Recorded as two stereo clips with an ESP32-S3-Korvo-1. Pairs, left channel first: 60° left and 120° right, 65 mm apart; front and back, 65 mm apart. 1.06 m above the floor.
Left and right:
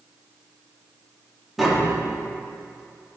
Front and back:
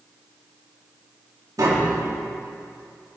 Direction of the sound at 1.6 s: 155° left.